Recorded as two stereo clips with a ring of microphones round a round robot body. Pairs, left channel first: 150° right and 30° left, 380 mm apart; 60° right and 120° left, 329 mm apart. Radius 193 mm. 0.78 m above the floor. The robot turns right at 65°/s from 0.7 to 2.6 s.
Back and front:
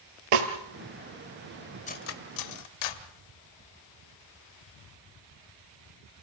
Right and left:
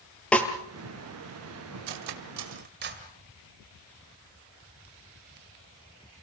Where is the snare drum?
25° left, 3.5 m.